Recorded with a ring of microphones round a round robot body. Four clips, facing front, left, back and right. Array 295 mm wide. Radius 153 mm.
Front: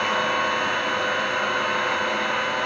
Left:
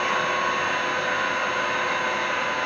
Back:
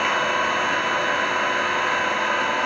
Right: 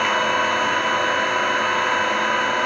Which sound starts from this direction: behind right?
An engine running, at 0.0 s.